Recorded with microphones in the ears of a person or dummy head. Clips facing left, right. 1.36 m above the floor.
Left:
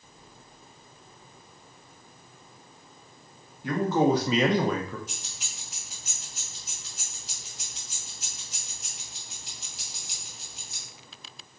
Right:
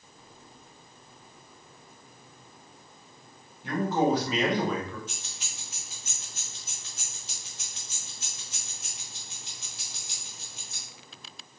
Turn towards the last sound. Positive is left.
turn(degrees=15)  # may be behind; listen again after turning